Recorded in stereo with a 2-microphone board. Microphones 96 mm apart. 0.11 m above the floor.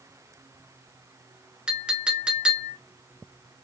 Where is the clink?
10° right (ahead or behind), 0.8 m.